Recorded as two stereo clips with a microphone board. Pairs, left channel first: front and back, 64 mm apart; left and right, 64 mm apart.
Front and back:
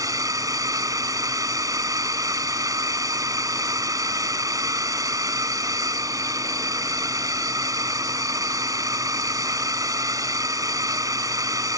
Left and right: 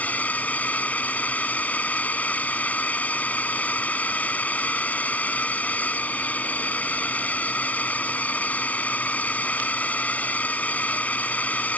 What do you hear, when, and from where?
0.0 s a drone: 155° left